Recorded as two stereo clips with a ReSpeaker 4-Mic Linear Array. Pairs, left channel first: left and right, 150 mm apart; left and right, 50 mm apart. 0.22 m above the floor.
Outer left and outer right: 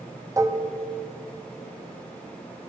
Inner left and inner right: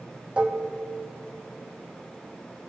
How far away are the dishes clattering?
About 0.7 m.